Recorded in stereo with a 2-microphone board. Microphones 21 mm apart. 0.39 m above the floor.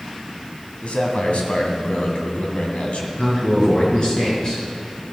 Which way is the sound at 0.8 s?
65° left (ahead or behind).